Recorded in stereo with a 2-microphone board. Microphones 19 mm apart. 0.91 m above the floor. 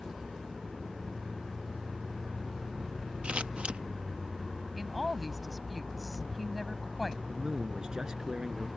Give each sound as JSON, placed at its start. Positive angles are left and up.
{"t": 3.2, "sound": "scissors", "side_deg": -75}
{"t": 4.7, "sound": "a woman speaking", "side_deg": 0}
{"t": 7.3, "sound": "a man speaking", "side_deg": -40}